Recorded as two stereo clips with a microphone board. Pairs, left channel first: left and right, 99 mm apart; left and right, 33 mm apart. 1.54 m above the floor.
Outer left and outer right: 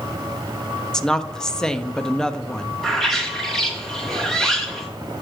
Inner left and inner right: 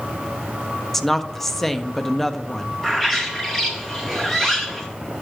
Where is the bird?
Centre (ahead or behind), 2.5 m.